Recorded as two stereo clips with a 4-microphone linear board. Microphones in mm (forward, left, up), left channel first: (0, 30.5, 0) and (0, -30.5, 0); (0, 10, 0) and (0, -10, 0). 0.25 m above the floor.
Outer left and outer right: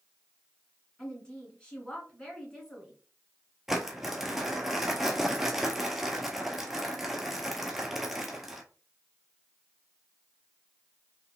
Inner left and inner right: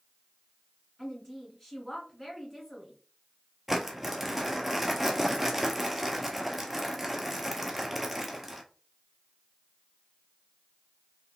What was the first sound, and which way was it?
A woman speaking, 15° left (ahead or behind).